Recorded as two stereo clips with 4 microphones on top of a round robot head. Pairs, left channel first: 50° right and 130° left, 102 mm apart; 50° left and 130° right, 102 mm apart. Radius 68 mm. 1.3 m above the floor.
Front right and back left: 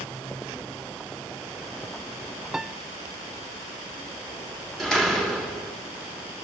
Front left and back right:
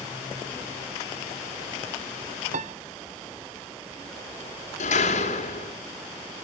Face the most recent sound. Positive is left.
turn(degrees=40)